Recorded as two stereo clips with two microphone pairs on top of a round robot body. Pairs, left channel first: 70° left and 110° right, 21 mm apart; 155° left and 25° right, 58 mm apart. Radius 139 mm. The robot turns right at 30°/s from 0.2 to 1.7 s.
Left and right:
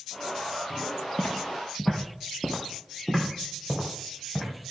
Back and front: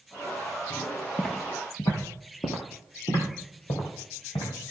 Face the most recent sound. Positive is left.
turn(degrees=180)